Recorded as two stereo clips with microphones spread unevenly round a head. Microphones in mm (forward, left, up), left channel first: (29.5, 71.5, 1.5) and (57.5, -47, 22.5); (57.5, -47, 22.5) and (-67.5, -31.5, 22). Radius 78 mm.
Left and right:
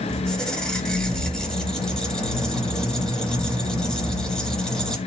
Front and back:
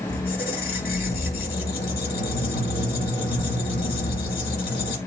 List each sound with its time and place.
0.1 s a squeak: 15° left, 2 m